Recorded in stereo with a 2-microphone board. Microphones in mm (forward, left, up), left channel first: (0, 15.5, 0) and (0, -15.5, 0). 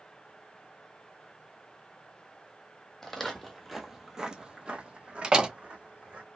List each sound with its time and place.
3.0 s footsteps: 15° left (ahead or behind), 0.9 m; by 6.2 s 40° right (ahead or behind), 1.5 m
5.2 s a door slam: 30° right (ahead or behind), 0.6 m